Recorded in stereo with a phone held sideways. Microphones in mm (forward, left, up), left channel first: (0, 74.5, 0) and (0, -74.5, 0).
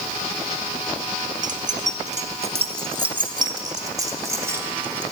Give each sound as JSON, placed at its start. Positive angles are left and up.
{"t": 1.4, "sound": "keys jangling", "side_deg": -60, "distance_m": 1.2}